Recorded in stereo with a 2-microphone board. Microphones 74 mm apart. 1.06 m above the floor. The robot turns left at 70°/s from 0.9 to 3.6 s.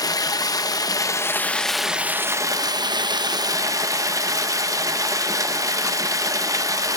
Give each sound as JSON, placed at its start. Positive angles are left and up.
{"t": 0.0, "sound": "running water", "azimuth_deg": 60, "distance_m": 0.8}